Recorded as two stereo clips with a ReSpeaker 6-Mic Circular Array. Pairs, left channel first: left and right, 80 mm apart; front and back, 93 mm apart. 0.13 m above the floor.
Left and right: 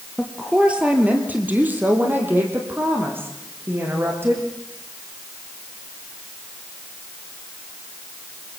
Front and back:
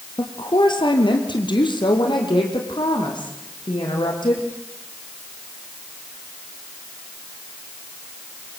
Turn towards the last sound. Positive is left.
turn(degrees=-30)